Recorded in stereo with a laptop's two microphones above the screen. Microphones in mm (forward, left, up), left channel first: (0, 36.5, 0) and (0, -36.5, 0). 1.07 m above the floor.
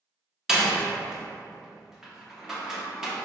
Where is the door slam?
5° right (ahead or behind), 0.6 m.